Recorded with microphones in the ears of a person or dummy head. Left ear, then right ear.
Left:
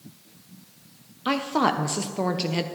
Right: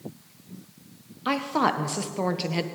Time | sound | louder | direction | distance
1.2 | a woman speaking | left 1 dB | centre (ahead or behind) | 0.9 m